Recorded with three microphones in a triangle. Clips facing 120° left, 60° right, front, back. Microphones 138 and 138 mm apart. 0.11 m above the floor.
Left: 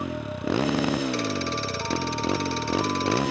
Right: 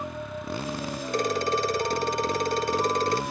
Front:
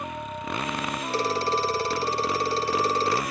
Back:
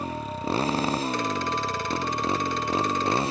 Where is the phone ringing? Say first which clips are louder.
Right 2 dB, front 2 dB; 45° right.